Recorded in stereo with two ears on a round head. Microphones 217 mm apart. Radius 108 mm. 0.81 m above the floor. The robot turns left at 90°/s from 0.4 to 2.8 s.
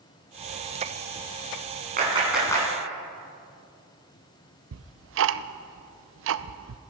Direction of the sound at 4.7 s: 55° right (ahead or behind).